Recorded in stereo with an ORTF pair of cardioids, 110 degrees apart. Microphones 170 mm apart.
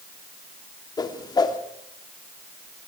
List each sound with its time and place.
1.0 s a whoosh: 25° left, 3 m